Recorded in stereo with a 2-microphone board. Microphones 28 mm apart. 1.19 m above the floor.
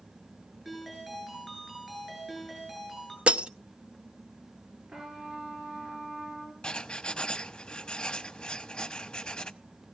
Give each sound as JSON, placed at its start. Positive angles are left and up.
{"t": 0.7, "sound": "a ringtone", "side_deg": -5, "distance_m": 10.0}
{"t": 3.3, "sound": "breaking glass", "side_deg": -45, "distance_m": 0.6}
{"t": 4.9, "sound": "a trumpet", "side_deg": -35, "distance_m": 7.0}
{"t": 6.6, "sound": "writing", "side_deg": 30, "distance_m": 1.0}